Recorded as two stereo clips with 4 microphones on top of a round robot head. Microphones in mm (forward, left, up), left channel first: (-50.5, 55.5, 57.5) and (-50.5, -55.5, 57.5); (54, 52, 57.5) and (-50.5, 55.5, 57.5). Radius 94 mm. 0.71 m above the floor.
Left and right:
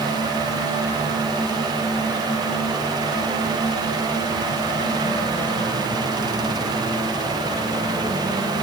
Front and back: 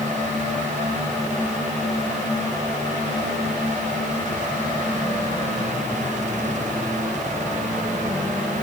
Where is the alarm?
I don't hear an alarm.